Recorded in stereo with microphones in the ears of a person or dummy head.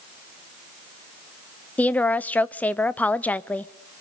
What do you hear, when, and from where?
1.8 s a woman speaking: 10° left (ahead or behind), 0.6 m